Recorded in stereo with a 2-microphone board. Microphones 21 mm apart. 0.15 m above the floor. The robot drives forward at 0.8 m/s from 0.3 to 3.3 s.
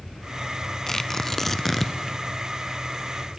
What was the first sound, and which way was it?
Tearing paper, 25° left (ahead or behind).